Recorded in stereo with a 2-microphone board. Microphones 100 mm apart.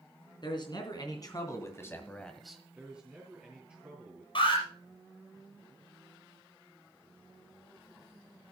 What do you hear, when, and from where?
0.4 s a man speaking: 50° left (ahead or behind), 3.5 m; by 2.6 s 10° right (ahead or behind), 1.5 m
2.8 s a man speaking: 15° right (ahead or behind), 3.5 m
4.3 s an alarm: 60° left (ahead or behind), 5 m